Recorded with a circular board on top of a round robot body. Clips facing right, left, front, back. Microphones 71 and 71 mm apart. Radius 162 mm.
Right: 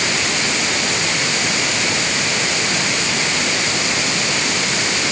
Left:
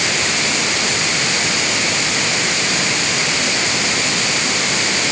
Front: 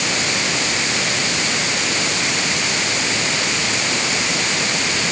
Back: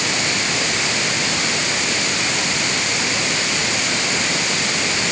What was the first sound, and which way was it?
Only background noise.